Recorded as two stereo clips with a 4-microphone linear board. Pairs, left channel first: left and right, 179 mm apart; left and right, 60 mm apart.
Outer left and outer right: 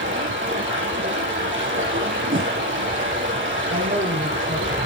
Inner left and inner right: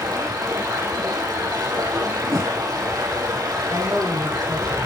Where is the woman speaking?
80° right, 5 m.